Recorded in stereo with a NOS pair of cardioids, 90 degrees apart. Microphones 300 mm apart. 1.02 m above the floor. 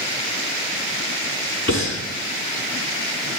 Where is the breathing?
10° left, 5.5 m.